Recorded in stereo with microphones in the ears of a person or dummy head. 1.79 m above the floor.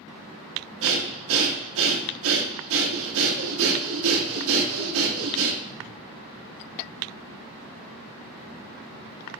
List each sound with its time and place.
0.8 s breathing: 80° right, 1.3 m